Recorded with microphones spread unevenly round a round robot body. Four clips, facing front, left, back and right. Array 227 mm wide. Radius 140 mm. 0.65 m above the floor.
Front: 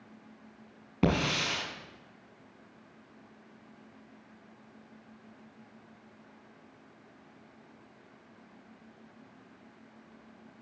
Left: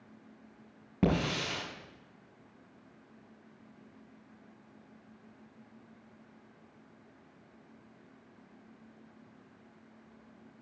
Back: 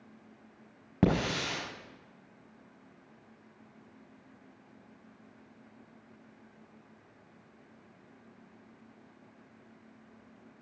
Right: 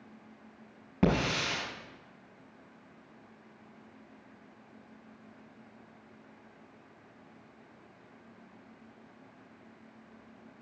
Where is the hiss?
160° left, 4.5 m.